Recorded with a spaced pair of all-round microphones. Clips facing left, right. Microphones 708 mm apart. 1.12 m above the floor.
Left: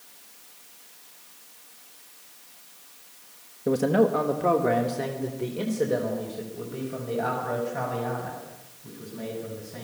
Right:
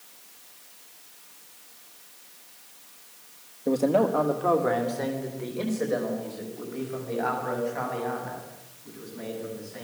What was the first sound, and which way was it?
A man speaking, 45° left (ahead or behind).